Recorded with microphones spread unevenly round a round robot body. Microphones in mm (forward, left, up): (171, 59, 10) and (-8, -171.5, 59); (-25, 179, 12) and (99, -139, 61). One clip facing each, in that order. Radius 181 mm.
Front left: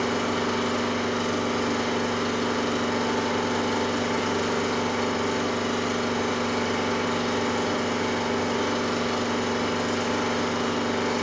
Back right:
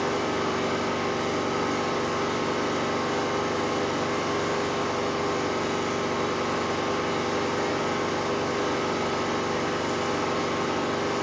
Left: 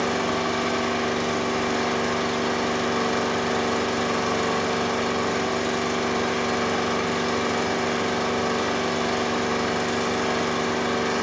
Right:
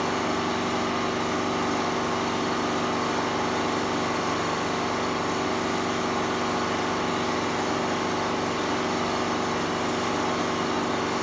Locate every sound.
0.0 s an engine running: 90° left, 1.1 m